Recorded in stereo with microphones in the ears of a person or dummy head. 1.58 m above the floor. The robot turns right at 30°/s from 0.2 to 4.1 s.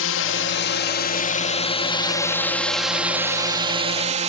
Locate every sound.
0.0 s a drone: 105° left; by 4.3 s 140° right